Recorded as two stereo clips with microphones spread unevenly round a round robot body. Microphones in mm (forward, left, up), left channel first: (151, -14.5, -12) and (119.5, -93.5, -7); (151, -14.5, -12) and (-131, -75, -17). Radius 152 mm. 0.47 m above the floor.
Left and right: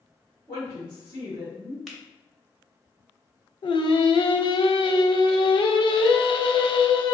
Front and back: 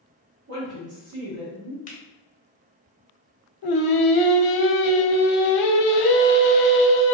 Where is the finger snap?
15° right, 0.8 m.